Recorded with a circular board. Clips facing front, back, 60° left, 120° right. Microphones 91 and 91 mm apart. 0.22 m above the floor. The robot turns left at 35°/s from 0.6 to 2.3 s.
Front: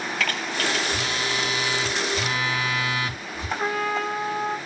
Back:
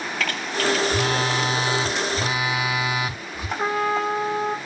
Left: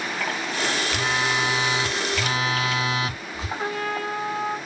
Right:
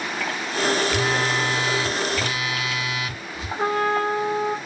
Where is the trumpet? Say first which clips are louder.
Back 4 dB, right 7 dB; 115° right, 3.5 m.